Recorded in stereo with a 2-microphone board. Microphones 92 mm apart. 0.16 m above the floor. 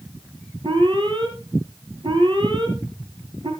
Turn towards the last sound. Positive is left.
turn(degrees=-60)  # may be behind; listen again after turning